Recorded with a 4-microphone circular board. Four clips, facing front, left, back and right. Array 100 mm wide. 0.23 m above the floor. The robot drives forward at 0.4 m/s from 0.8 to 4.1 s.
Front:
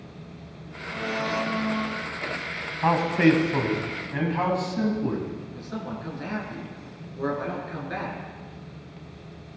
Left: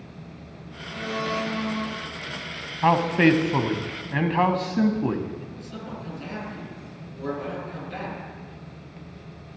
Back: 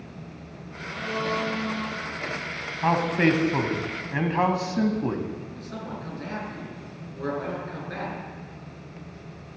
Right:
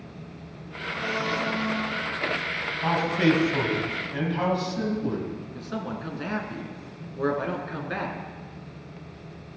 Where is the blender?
30° left, 3 m; by 2.0 s 35° left, 2.5 m.